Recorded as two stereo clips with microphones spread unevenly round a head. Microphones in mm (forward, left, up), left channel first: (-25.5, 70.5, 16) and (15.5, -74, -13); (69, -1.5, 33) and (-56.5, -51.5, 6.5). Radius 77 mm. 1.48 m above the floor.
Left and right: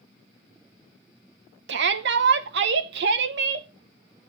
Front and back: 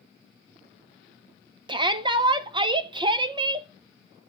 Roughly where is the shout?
Right.